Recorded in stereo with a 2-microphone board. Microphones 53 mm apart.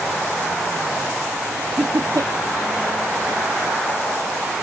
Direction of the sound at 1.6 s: 75° right (ahead or behind).